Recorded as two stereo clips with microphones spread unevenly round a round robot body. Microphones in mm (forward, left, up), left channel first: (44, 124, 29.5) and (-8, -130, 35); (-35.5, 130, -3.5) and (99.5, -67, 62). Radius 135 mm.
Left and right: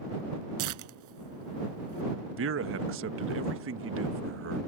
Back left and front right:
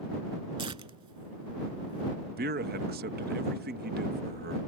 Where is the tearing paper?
120° right.